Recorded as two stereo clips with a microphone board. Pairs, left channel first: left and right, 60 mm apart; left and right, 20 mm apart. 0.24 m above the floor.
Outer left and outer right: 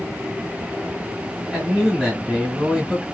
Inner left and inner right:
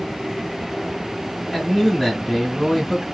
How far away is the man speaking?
About 1.1 m.